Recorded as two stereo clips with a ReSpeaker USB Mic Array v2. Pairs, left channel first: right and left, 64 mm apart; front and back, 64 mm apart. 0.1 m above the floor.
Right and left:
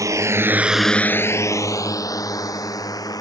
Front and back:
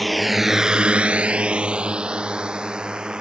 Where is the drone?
90° left; by 3.2 s 105° right.